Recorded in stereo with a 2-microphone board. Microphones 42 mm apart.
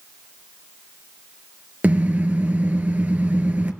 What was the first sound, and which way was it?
A car horn, 45° right (ahead or behind).